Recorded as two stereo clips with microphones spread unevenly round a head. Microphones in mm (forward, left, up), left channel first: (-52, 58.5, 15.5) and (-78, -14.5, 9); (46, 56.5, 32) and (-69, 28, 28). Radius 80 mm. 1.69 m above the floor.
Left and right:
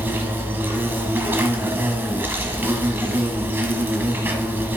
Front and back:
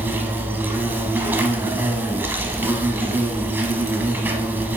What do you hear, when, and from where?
0.0 s an insect: 115° right, 0.9 m